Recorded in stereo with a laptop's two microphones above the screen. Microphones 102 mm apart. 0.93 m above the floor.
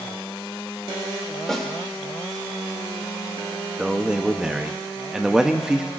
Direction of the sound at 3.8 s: 5° right (ahead or behind).